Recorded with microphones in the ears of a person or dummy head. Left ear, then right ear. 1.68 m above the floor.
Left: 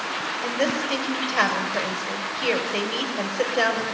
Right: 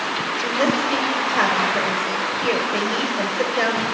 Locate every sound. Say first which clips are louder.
0.4 s a woman speaking: right 4 dB; 15° left (ahead or behind), 7 m